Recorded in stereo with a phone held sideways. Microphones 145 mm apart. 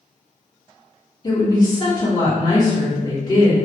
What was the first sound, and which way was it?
A woman speaking, 30° left (ahead or behind).